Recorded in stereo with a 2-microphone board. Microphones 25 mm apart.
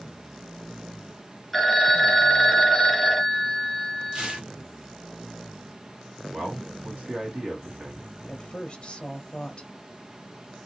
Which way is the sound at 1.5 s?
5° left (ahead or behind).